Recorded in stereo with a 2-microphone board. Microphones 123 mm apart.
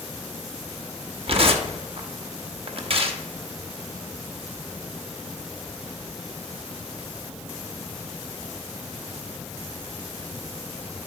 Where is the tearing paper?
50° right (ahead or behind), 0.7 m.